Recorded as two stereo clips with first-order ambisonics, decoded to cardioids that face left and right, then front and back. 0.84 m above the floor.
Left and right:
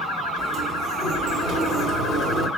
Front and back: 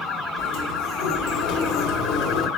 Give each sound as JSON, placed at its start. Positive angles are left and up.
{"t": 0.4, "sound": "a sliding door", "azimuth_deg": -25, "distance_m": 3.5}